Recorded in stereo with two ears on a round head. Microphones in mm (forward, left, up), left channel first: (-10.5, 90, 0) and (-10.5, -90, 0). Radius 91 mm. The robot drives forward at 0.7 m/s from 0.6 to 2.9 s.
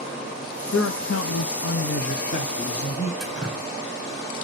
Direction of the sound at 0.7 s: 65° left (ahead or behind).